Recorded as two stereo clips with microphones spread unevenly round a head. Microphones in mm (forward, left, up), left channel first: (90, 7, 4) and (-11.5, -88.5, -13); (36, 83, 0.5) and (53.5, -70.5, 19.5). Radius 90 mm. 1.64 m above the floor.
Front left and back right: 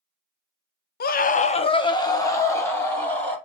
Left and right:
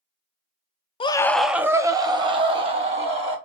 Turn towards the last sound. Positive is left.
turn(degrees=-35)